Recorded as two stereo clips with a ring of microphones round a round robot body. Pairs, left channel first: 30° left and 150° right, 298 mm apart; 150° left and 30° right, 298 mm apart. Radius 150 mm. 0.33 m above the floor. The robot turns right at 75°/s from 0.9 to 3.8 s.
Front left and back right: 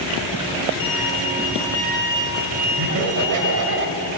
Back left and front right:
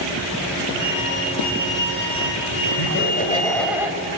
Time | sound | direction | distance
0.8 | a violin | 50° left | 5.5 m
2.8 | laughter | 175° left | 1.6 m